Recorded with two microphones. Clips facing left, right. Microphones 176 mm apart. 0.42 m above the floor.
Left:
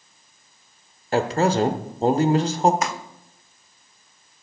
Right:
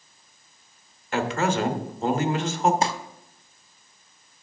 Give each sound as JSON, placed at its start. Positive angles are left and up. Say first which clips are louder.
{"t": 1.1, "sound": "a man speaking", "louder": "left 4 dB", "side_deg": 40, "distance_m": 0.9}
{"t": 2.8, "sound": "crumpling", "louder": "right 2 dB", "side_deg": -30, "distance_m": 0.6}